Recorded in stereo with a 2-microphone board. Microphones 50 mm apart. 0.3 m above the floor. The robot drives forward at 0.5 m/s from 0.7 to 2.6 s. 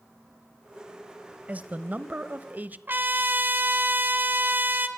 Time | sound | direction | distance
1.5 | a man speaking | 25° right (ahead or behind) | 1.2 m
2.9 | a trumpet | 40° right (ahead or behind) | 1.8 m